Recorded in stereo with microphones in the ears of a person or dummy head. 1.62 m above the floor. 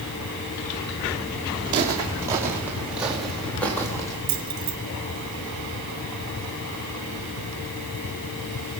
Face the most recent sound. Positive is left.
turn(degrees=-25)  # may be behind; listen again after turning